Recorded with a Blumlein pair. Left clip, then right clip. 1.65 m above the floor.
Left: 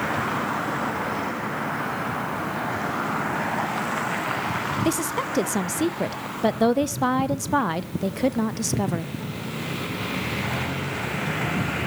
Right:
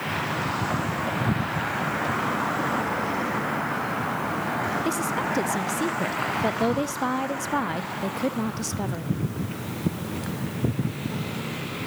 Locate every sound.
4.8 s a woman speaking: 15° left, 0.7 m